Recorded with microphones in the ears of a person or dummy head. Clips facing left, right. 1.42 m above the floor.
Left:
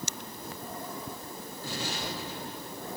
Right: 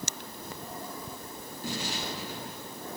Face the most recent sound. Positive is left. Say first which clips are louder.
# right 1 dB
turn(degrees=-15)  # may be behind; listen again after turning